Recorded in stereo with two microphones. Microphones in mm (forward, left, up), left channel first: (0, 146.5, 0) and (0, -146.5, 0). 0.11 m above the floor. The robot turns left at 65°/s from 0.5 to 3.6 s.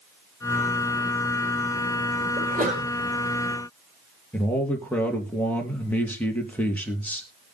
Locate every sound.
2.4 s a sneeze: 135° right, 3.5 m; by 2.9 s 165° right, 3.5 m
4.3 s a man speaking: 5° left (ahead or behind), 2.5 m